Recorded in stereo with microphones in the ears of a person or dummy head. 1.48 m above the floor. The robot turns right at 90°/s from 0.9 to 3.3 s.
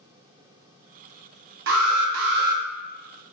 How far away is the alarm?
About 0.6 m.